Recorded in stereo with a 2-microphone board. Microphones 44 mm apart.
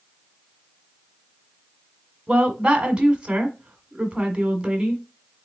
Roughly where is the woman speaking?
Right.